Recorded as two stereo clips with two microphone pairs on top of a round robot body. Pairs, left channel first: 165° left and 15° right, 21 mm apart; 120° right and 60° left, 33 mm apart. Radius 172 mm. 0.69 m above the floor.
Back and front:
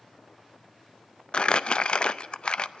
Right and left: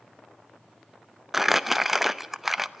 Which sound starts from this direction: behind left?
Crumpling, at 1.3 s.